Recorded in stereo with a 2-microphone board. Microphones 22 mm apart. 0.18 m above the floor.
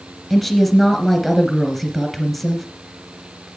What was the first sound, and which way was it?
A woman speaking, 10° right (ahead or behind).